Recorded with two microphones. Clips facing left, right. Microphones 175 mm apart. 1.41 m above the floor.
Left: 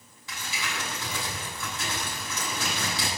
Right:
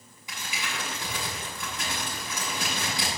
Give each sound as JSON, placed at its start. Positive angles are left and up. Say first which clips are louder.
{"t": 0.3, "sound": "crumpling", "louder": "even", "side_deg": -15, "distance_m": 8.5}